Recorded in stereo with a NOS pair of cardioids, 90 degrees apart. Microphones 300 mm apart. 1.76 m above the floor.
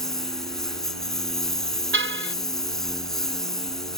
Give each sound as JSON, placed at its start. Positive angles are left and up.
{"t": 0.0, "sound": "a lawn mower", "azimuth_deg": 0}
{"t": 1.9, "sound": "a car horn", "azimuth_deg": -45}